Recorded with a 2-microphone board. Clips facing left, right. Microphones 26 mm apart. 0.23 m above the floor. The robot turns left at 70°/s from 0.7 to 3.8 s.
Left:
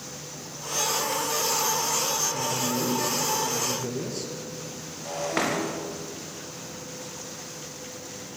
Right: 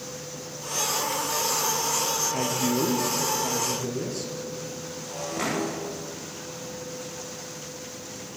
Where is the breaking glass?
70° left (ahead or behind), 9 m.